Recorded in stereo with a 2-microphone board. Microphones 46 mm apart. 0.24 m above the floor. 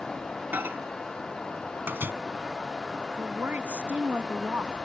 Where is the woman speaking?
40° right (ahead or behind).